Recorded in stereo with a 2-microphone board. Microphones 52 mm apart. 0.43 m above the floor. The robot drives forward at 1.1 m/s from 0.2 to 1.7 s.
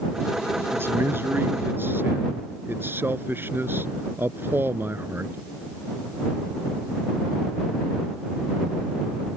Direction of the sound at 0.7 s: 55° right (ahead or behind).